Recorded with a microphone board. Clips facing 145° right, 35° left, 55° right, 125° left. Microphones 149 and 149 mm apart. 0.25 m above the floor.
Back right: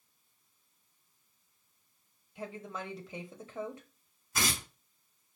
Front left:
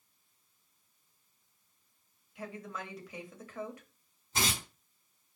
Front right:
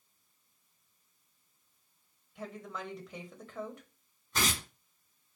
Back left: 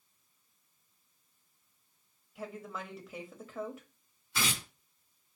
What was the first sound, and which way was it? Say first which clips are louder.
A woman speaking: back right 1 dB, even; 155° right.